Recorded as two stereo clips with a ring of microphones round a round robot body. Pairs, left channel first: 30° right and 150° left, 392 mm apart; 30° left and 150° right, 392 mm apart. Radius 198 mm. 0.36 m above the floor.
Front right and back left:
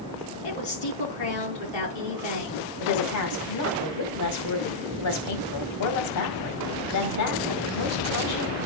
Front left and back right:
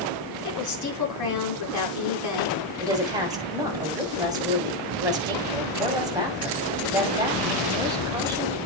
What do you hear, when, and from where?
0.4 s a woman speaking: 15° right, 5 m
2.8 s a woman speaking: 70° right, 2.5 m